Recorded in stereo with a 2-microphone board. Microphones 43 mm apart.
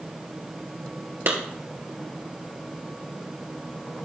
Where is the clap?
60° right (ahead or behind), 1.7 m.